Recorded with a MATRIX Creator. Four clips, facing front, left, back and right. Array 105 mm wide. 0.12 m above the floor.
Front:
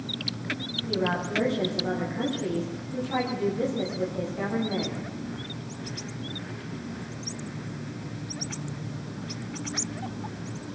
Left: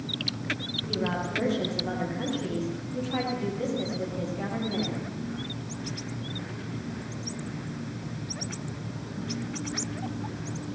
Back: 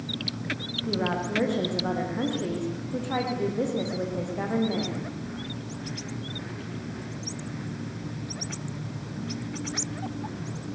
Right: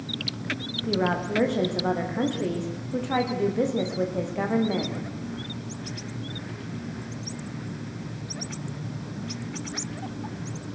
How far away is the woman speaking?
About 8 m.